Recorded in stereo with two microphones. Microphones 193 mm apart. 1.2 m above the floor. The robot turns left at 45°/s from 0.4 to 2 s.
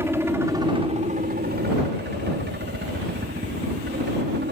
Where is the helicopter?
15° right; by 4.5 s 85° right.